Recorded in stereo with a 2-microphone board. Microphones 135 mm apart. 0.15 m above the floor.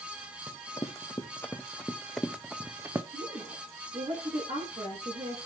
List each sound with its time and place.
0.5 s running footsteps: 30° left (ahead or behind), 1.7 m; by 3.0 s 20° right (ahead or behind), 1.0 m
3.1 s a woman speaking: 50° right (ahead or behind), 9 m